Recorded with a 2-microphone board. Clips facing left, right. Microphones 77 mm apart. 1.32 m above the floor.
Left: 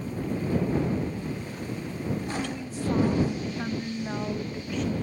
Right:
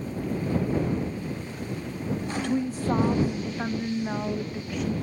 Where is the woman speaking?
50° right (ahead or behind); by 5.0 s centre (ahead or behind).